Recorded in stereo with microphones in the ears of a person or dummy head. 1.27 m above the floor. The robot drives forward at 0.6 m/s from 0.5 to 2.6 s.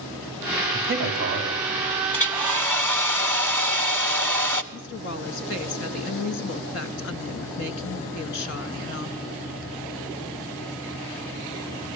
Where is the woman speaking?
55° left (ahead or behind), 1.8 m.